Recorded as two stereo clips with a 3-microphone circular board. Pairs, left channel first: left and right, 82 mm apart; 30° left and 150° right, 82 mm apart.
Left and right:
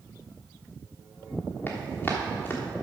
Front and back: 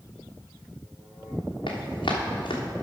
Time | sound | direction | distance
1.7 | running footsteps | 25° left | 2.5 m